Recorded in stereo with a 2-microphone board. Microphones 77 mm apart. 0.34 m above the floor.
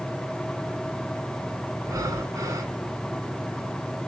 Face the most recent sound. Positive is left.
turn(degrees=-45)  # may be behind; listen again after turning